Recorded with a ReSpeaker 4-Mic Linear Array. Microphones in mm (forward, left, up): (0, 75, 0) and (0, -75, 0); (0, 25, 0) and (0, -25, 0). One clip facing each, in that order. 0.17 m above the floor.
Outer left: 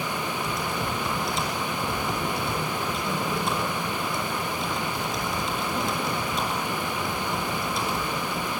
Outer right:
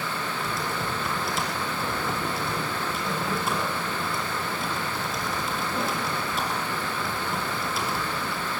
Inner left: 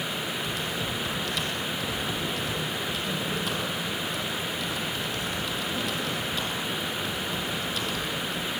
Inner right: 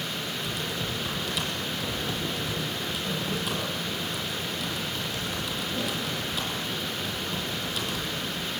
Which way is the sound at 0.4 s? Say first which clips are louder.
Outer left 1 dB, inner left 1 dB; 5° right (ahead or behind).